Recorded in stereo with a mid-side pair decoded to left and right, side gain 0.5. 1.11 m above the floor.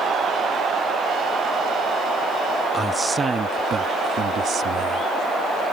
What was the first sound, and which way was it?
A man speaking, 15° right.